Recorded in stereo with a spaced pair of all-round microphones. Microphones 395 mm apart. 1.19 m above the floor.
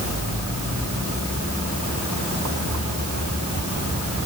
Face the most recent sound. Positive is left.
No sound to turn to.